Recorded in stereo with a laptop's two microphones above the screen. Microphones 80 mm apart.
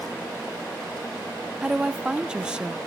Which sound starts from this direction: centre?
A woman speaking, at 1.6 s.